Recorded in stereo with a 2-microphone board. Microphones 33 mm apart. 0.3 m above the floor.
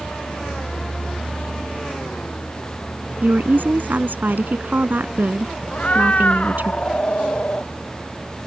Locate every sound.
0.0 s a vehicle: 85° left; by 8.5 s 10° right (ahead or behind)
3.2 s a woman speaking: 70° right (ahead or behind)
5.7 s a cat meowing: 45° left (ahead or behind)